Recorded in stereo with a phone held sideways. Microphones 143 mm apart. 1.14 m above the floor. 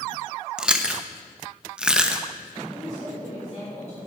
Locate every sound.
0.6 s chewing: 5° right (ahead or behind), 0.8 m
2.7 s a woman speaking: 45° left (ahead or behind), 5.5 m